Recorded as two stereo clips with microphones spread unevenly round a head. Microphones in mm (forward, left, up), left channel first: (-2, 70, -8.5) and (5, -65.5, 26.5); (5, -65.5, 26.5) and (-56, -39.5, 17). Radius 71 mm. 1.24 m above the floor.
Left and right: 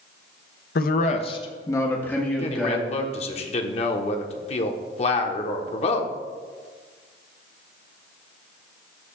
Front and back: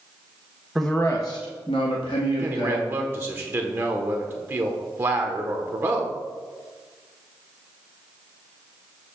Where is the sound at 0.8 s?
70° left, 0.8 m; by 2.9 s straight ahead, 2 m.